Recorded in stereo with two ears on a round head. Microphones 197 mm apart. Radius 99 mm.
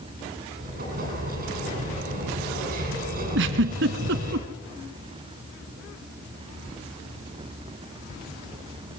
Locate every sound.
0.6 s an explosion: 40° right (ahead or behind), 9.5 m
3.4 s a giggle: 55° right (ahead or behind), 1.4 m